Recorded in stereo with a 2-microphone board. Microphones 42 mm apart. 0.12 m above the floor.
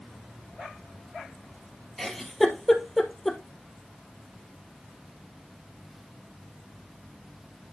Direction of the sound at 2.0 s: 5° left (ahead or behind).